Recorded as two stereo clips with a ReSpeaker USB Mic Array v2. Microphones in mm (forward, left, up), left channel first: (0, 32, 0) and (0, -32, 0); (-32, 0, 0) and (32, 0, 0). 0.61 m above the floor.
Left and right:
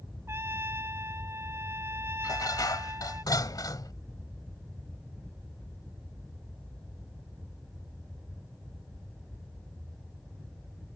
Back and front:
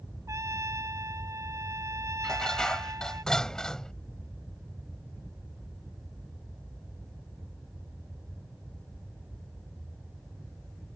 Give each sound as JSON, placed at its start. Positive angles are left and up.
{"t": 0.3, "sound": "a trumpet", "azimuth_deg": -40}
{"t": 2.2, "sound": "dishes clattering", "azimuth_deg": 100}